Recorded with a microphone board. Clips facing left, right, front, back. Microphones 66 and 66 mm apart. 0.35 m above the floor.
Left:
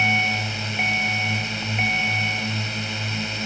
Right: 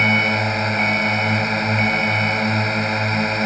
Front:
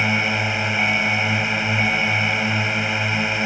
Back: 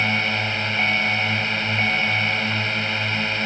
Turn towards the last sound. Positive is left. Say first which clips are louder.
# right 4 dB, front 2 dB
turn(degrees=-75)